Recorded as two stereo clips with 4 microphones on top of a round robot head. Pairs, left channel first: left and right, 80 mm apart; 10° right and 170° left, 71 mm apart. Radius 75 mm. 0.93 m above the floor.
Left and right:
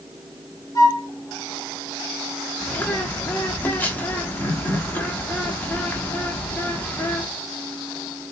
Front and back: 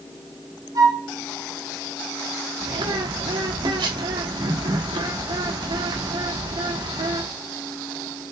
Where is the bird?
160° left, 1.0 m.